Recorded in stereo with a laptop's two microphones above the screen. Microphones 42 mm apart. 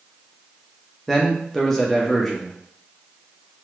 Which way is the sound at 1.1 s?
10° left (ahead or behind).